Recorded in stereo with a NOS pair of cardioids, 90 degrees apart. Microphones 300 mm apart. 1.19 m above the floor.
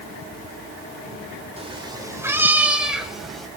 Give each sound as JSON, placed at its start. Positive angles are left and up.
{"t": 1.6, "sound": "a cat meowing", "azimuth_deg": -20, "distance_m": 1.9}